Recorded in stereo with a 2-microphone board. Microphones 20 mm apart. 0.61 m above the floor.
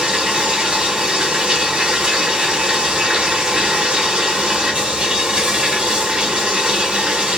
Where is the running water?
65° right (ahead or behind), 1.2 m.